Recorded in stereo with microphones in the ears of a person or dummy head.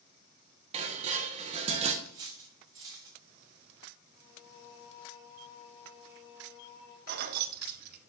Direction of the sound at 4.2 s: 90° left.